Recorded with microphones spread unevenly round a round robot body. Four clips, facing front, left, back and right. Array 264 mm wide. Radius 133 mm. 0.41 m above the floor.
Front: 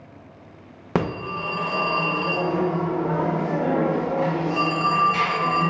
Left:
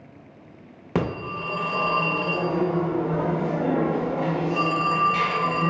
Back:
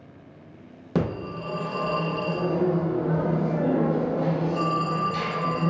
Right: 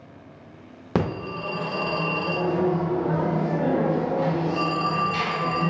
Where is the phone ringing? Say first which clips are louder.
Even, front 2 dB; 25° right, 0.5 m.